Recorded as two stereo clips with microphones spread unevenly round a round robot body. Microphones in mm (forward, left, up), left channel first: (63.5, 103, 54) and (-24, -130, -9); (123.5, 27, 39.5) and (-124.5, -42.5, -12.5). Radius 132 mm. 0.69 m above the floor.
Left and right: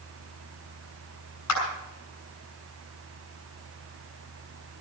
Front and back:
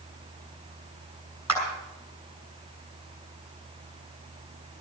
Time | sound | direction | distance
1.5 | a clap | 100° left | 6.5 m